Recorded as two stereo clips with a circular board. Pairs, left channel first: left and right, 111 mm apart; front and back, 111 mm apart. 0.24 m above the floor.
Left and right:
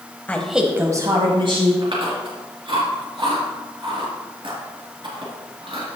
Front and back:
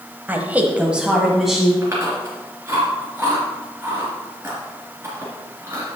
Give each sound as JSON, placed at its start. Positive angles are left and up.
{"t": 0.3, "sound": "a woman speaking", "azimuth_deg": 140, "distance_m": 1.2}
{"t": 1.8, "sound": "chewing", "azimuth_deg": -115, "distance_m": 3.5}